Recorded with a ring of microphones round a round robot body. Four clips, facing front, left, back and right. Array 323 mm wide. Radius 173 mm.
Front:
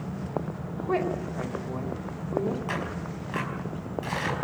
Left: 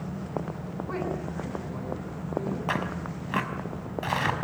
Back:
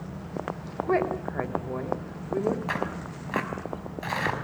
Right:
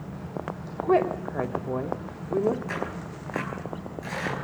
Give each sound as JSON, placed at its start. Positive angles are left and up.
{"t": 0.8, "sound": "a woman speaking", "azimuth_deg": -105, "distance_m": 3.5}
{"t": 2.7, "sound": "tearing paper", "azimuth_deg": 110, "distance_m": 5.0}